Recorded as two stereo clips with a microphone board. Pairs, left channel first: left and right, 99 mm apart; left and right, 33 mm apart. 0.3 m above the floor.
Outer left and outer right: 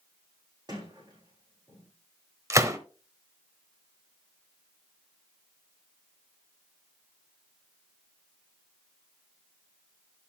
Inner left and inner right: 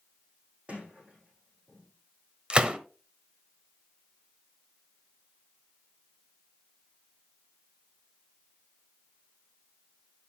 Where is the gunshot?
30° right (ahead or behind), 1.1 m.